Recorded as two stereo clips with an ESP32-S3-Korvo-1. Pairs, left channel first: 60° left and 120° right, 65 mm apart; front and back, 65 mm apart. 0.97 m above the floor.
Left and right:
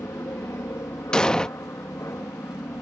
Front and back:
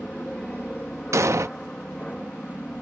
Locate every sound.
0.0 s an aircraft: 75° left
1.1 s an explosion: 140° left